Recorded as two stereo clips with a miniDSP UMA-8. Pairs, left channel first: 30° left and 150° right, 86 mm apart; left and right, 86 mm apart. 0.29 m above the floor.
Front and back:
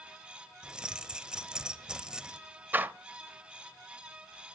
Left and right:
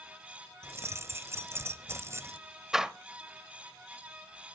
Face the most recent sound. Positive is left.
turn(degrees=-165)